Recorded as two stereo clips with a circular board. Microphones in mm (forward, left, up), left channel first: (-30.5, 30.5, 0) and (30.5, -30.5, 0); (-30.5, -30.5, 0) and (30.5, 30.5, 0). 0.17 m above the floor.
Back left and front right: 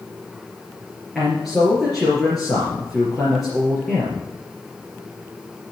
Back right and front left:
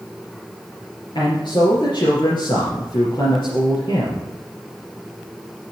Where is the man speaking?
135° right, 3 m.